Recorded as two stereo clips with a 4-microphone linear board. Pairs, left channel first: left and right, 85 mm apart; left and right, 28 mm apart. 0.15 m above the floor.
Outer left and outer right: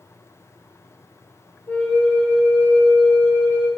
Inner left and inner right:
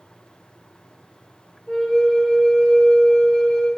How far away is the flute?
About 0.6 m.